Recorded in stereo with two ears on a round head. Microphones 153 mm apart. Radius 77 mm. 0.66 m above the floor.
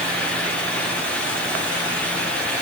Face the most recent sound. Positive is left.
No sound to turn to.